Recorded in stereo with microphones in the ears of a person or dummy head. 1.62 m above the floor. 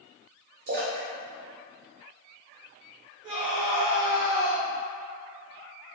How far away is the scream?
About 1.0 m.